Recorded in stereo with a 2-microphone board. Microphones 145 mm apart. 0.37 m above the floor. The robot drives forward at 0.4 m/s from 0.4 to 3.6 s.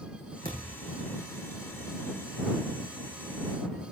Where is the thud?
85° right, 6 m.